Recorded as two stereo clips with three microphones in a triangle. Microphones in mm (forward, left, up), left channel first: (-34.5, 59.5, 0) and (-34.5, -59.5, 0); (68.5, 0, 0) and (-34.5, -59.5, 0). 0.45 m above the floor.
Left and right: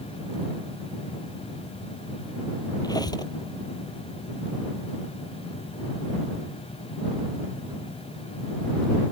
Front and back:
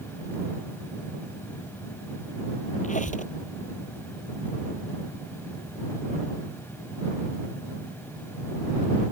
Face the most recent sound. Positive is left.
turn(degrees=30)